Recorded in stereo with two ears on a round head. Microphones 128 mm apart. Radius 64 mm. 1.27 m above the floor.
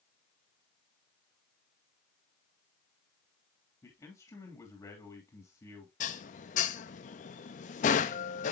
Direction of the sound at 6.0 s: 55° left (ahead or behind).